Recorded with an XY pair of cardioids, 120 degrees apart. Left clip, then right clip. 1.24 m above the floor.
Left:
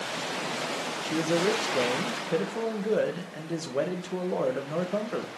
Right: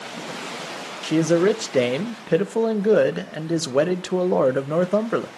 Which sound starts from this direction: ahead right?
A man speaking, at 1.0 s.